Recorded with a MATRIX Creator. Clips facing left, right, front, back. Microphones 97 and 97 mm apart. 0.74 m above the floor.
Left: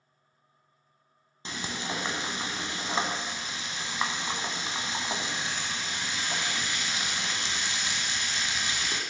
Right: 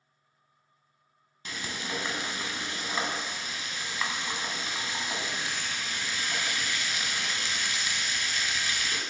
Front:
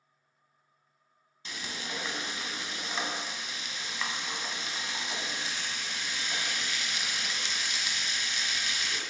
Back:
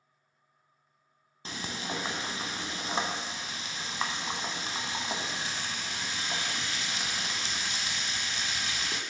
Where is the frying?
140° left, 0.8 m.